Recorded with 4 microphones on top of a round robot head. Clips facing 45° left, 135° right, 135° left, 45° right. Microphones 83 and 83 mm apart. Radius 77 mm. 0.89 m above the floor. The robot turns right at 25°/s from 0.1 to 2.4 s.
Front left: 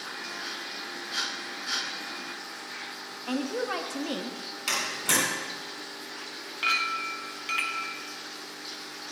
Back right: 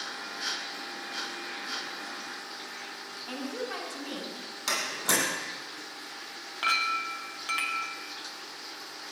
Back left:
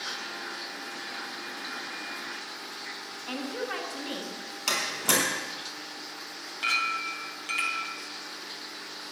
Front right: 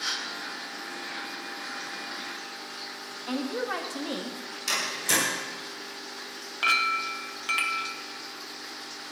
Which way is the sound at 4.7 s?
160° left.